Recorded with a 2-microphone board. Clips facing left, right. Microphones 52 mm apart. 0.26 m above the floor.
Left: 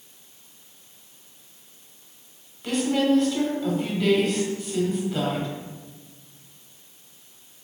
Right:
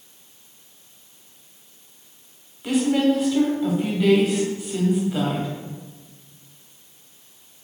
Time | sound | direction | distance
2.6 | a woman speaking | 10° right (ahead or behind) | 1.1 m